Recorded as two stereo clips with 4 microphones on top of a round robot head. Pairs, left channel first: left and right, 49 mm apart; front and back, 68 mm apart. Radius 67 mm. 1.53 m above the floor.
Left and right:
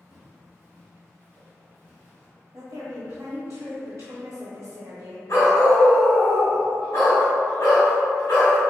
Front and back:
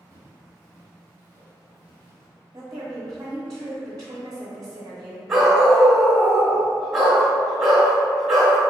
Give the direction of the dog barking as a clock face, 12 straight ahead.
9 o'clock.